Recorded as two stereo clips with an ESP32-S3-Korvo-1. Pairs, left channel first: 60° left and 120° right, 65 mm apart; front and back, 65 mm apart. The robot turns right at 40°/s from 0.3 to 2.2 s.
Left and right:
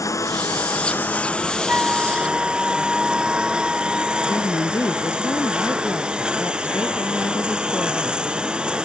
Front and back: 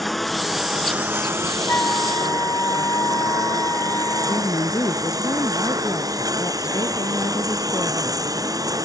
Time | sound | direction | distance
0.0 | a lawn mower | 90° left | ?
1.7 | a flute | 60° right | ?
4.3 | a woman speaking | 25° left | ?